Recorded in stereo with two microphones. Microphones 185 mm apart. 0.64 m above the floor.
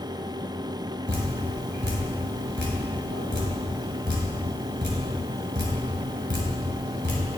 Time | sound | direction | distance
1.1 | dripping | 75° right (ahead or behind) | 2.5 m